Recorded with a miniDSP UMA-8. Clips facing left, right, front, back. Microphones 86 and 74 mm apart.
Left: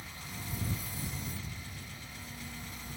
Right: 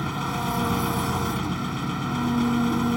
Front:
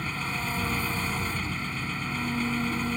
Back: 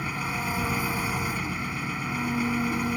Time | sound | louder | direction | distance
0.0 | an engine running | right 19 dB, back 2 dB | 100° right | ?